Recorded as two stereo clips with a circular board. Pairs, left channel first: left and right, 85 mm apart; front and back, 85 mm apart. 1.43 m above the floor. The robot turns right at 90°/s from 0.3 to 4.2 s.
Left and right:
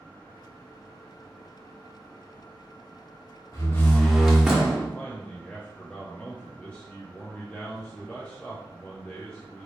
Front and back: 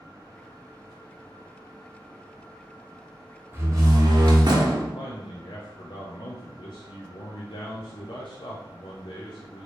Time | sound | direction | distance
3.5 | a door slam | 125° left | 0.9 m
5.0 | a man speaking | 15° left | 0.6 m